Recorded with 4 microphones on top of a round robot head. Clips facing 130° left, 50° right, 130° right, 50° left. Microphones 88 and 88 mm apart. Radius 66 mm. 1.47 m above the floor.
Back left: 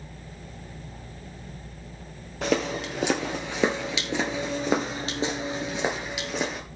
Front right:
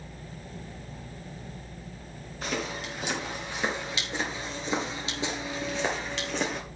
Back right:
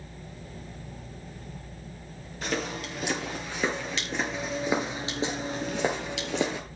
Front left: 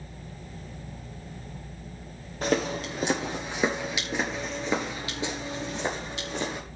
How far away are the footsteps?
About 2.5 m.